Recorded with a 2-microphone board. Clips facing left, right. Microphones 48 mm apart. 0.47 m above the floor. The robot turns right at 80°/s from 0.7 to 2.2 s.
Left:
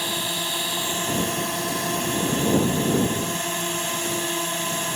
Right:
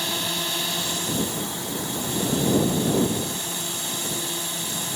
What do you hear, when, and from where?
0.0 s a drone: 15° left; by 5.0 s 135° left